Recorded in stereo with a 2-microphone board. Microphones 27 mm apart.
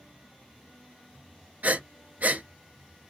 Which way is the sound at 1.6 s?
70° right (ahead or behind).